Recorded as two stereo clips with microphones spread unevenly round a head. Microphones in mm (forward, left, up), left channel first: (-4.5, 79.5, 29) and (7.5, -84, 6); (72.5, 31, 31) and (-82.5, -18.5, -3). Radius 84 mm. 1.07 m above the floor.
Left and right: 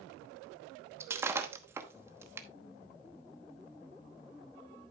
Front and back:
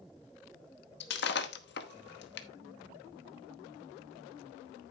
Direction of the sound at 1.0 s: 10° right.